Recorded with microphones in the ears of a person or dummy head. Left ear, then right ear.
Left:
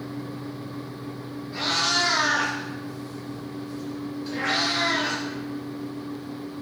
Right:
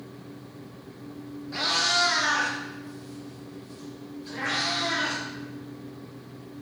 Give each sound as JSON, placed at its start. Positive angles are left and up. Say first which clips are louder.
{"t": 1.5, "sound": "a cat meowing", "louder": "even", "side_deg": -30, "distance_m": 1.4}